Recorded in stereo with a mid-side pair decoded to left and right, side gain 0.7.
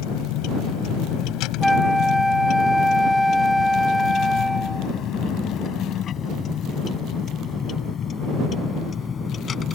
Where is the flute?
10° left.